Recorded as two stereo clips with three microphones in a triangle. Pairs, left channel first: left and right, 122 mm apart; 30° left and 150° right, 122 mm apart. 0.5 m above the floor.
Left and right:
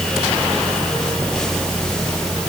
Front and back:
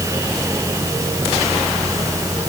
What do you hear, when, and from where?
Only background noise.